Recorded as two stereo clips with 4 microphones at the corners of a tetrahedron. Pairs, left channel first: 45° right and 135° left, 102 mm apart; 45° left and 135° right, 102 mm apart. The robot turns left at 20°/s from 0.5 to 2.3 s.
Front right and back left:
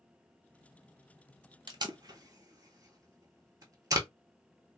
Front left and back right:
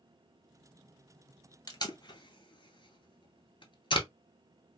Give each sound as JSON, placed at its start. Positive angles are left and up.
{"t": 1.7, "sound": "tape being pulled", "azimuth_deg": 90, "distance_m": 0.7}